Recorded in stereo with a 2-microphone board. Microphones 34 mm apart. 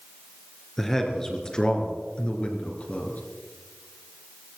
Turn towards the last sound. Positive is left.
turn(degrees=50)  # may be behind; listen again after turning